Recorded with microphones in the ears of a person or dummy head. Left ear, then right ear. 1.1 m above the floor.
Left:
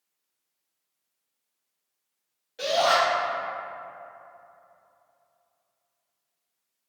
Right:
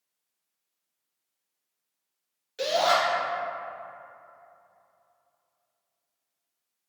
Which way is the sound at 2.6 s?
30° right (ahead or behind).